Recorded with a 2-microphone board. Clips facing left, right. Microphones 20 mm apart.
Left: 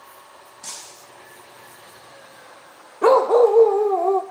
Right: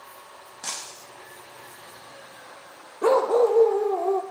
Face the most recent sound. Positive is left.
turn(degrees=45)  # may be behind; listen again after turning